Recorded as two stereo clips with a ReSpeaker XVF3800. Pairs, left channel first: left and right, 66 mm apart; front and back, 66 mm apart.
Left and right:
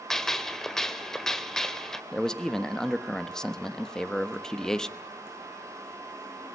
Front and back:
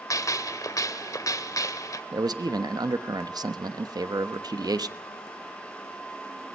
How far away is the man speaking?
About 1.1 m.